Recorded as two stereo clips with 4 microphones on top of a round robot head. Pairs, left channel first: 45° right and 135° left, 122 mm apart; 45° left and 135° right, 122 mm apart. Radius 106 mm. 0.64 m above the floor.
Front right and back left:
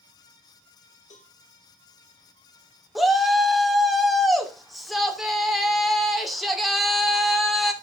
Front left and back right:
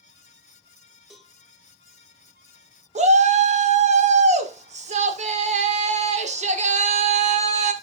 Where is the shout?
135° right, 2.5 m.